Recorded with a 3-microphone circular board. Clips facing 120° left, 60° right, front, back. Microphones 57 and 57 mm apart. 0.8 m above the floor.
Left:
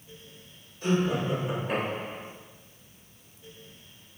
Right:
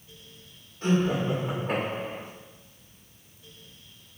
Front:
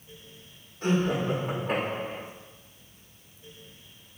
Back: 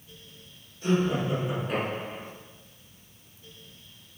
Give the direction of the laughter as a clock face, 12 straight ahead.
12 o'clock.